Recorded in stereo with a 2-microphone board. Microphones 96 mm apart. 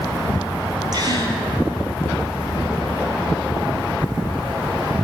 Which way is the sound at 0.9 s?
45° right (ahead or behind).